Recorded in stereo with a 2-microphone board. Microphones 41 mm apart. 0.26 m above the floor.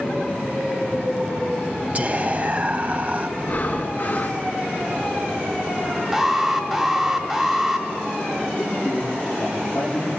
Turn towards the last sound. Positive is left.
turn(degrees=50)  # may be behind; listen again after turning